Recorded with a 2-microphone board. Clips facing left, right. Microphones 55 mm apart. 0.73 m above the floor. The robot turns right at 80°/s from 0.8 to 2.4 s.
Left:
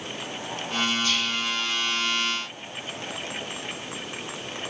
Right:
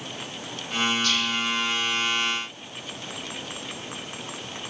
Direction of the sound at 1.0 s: 15° left (ahead or behind).